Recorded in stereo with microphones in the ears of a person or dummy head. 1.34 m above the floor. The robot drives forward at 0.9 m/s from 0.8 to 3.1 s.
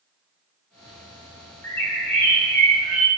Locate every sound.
1.6 s a bird: 10° left (ahead or behind), 0.7 m; by 3.1 s 5° left (ahead or behind), 1.8 m